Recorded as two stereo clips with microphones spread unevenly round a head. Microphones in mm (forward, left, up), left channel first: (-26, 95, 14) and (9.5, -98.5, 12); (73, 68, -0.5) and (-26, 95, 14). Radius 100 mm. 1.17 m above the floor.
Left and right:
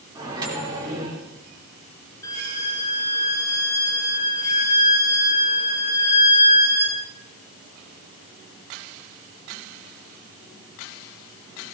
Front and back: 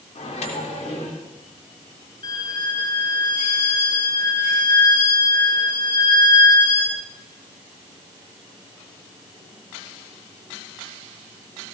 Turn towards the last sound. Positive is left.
turn(degrees=25)